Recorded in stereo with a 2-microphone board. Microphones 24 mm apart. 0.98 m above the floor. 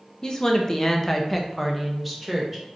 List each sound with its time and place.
0.2 s a woman speaking: 30° left (ahead or behind), 0.6 m; by 2.6 s 5° right (ahead or behind), 1.1 m